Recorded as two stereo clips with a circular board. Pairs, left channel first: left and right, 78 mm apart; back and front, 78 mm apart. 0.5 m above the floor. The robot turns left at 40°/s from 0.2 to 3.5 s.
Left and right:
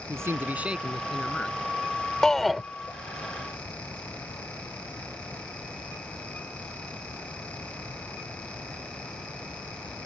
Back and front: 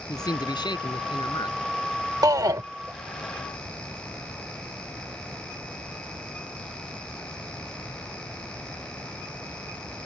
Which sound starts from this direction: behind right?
A man speaking, at 0.1 s.